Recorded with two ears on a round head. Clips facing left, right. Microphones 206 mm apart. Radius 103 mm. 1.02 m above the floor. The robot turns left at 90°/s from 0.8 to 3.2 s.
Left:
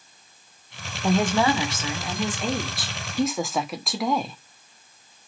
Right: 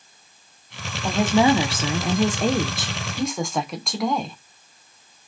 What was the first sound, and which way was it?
A woman speaking, 10° left.